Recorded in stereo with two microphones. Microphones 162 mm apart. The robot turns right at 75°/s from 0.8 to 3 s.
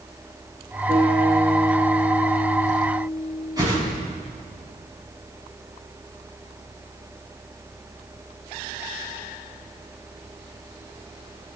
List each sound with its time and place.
0.9 s a guitar: 25° left, 7 m; by 4.1 s 175° right, 7 m
3.6 s a whoosh: 25° right (ahead or behind), 5 m